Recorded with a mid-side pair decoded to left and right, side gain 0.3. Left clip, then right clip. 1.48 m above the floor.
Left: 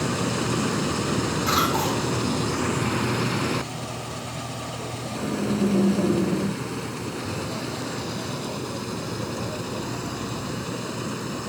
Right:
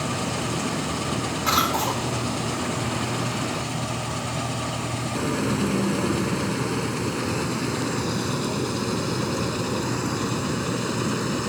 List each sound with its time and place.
1.5 s a cough: 65° right, 4 m